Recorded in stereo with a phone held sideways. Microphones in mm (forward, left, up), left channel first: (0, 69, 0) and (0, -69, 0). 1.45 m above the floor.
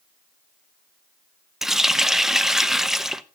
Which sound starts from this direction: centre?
A running tap, at 1.6 s.